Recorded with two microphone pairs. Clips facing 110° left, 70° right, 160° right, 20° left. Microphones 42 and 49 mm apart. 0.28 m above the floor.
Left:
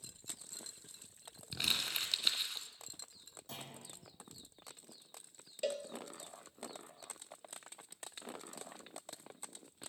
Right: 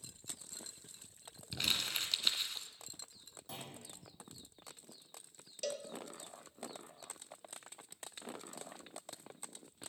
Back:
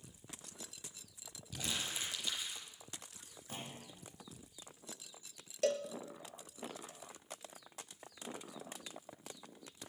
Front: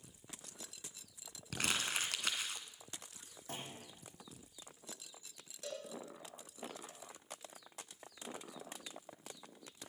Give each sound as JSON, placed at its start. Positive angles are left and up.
{"t": 1.5, "sound": "crumpling", "azimuth_deg": 25, "distance_m": 2.0}
{"t": 3.5, "sound": "a clunk", "azimuth_deg": 20, "distance_m": 9.5}
{"t": 5.6, "sound": "a cowbell", "azimuth_deg": 180, "distance_m": 1.1}